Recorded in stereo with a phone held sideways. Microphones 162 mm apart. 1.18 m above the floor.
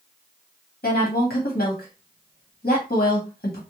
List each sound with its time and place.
0.8 s a woman speaking: 80° left, 1.2 m